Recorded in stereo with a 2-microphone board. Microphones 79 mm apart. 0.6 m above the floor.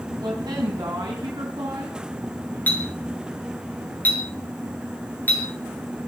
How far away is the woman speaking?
About 3.5 m.